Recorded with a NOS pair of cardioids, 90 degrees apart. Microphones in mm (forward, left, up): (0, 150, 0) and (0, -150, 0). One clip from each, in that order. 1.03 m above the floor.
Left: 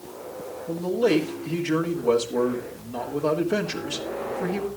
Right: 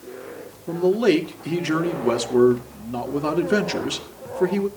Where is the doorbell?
No doorbell in this recording.